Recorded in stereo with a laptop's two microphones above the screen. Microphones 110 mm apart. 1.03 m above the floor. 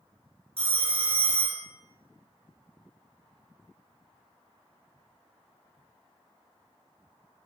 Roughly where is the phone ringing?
Right.